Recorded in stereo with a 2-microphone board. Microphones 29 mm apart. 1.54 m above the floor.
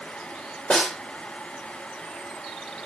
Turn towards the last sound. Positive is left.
turn(degrees=40)  # may be behind; listen again after turning